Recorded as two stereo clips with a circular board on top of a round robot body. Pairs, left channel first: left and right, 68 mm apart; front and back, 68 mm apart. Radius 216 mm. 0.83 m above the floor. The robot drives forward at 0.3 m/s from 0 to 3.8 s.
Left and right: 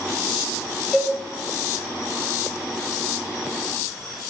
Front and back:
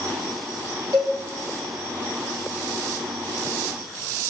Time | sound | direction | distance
0.9 | a cowbell | 165° left | 2.5 m